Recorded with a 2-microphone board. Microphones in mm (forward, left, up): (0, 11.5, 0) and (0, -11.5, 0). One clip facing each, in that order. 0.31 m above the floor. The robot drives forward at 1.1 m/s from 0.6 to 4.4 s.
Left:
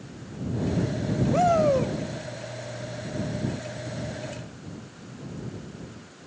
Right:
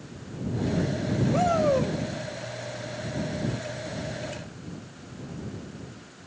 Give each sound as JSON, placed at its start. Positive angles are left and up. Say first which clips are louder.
{"t": 1.3, "sound": "a shout", "louder": "left 3 dB", "side_deg": 15, "distance_m": 1.0}